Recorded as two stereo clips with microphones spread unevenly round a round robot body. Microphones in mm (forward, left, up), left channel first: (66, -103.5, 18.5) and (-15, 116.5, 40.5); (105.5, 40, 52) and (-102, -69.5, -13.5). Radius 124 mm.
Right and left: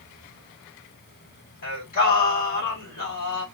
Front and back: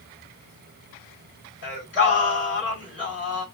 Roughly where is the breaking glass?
No breaking glass in this recording.